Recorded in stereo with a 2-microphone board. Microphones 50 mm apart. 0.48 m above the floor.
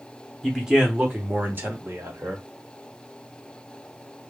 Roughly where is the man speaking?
Centre.